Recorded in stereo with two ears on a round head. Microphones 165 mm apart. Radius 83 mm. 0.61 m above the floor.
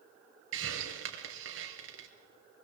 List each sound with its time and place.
0.5 s a hiss: 80° right, 3 m